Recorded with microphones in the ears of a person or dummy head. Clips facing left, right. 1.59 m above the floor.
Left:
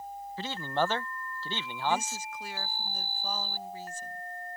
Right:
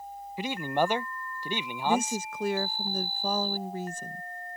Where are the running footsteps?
I don't hear running footsteps.